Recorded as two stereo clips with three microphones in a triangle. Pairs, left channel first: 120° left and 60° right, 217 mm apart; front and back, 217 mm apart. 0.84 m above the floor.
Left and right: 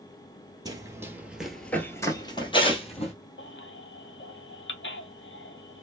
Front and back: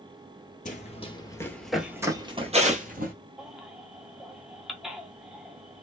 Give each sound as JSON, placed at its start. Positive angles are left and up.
{"t": 0.7, "sound": "running footsteps", "azimuth_deg": 0, "distance_m": 1.0}
{"t": 3.4, "sound": "a baby crying", "azimuth_deg": 90, "distance_m": 0.6}